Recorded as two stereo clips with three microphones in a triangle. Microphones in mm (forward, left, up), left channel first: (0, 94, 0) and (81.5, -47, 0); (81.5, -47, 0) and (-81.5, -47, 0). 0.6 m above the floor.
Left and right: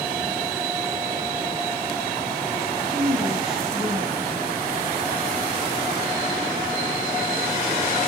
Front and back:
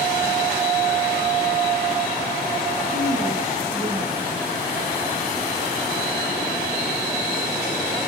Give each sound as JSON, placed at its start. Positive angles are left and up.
{"t": 2.9, "sound": "a woman speaking", "azimuth_deg": -145, "distance_m": 6.5}